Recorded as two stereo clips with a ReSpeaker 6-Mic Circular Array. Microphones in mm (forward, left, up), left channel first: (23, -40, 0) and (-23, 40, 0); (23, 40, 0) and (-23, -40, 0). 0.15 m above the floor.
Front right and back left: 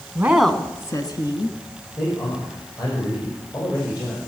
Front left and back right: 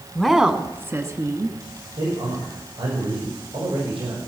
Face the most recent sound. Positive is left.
turn(degrees=-110)